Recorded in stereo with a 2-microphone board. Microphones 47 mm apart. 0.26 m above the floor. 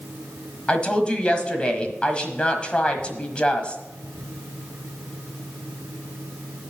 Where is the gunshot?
No gunshot in this recording.